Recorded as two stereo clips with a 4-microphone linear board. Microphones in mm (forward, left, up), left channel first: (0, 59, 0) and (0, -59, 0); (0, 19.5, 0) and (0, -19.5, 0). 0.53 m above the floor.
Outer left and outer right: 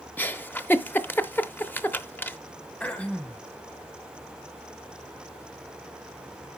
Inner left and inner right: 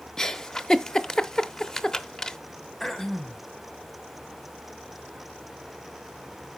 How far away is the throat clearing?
About 0.8 m.